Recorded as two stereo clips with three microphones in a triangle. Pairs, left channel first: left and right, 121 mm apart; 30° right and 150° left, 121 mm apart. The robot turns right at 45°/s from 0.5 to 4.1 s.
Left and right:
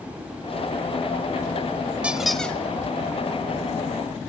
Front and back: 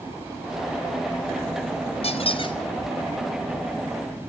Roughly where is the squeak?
Ahead.